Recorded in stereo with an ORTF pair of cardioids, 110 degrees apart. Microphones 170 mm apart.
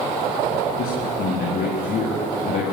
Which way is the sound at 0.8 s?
65° left.